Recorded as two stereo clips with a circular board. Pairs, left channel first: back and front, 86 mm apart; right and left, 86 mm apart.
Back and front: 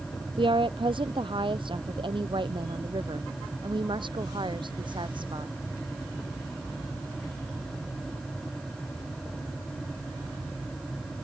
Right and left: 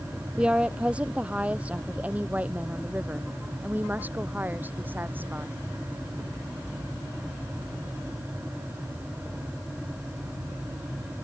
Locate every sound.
0.4 s a woman speaking: 15° left; by 5.5 s 25° left